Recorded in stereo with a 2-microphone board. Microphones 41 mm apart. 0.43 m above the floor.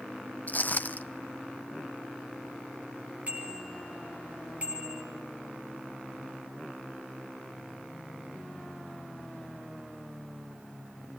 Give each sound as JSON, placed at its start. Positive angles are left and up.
{"t": 0.5, "sound": "footsteps", "side_deg": 40, "distance_m": 0.8}
{"t": 3.3, "sound": "a bicycle bell", "side_deg": -30, "distance_m": 7.0}